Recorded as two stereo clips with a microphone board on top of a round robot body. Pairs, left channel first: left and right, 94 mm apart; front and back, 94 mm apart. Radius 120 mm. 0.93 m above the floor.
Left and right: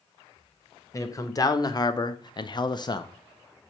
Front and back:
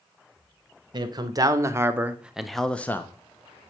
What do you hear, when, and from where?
0.9 s a man speaking: 145° left, 1.3 m; by 3.1 s 60° left, 1.0 m